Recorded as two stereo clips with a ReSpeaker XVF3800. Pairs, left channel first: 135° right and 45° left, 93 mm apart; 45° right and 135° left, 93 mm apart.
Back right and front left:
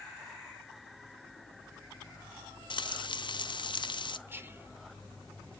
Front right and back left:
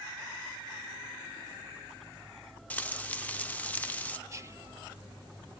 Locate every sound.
2.7 s frying: 115° right, 0.6 m
4.3 s whispering: 95° left, 0.7 m